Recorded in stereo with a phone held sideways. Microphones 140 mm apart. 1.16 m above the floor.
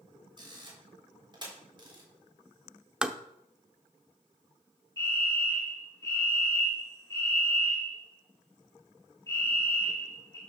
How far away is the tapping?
About 0.7 m.